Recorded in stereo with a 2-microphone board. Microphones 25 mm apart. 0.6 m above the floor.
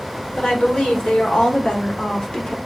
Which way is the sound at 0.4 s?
55° left (ahead or behind).